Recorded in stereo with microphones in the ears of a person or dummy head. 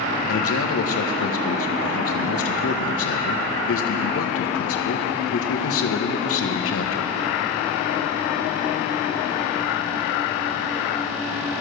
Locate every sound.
0.3 s a man speaking: 60° left (ahead or behind), 1.4 m